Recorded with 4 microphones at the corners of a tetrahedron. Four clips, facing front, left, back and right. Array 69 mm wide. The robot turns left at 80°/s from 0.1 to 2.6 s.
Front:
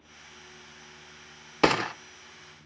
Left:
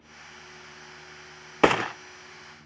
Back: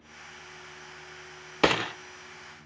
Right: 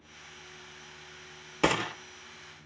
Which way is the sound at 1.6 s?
80° left.